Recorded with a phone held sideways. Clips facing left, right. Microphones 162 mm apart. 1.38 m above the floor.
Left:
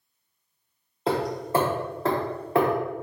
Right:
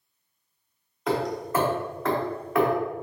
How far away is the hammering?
About 0.8 m.